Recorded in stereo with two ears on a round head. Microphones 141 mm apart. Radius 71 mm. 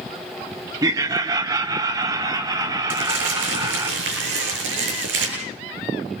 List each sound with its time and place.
0.8 s laughter: 25° right (ahead or behind), 0.8 m; by 3.9 s 20° right (ahead or behind), 2.5 m
2.9 s crumpling: 85° right, 8.5 m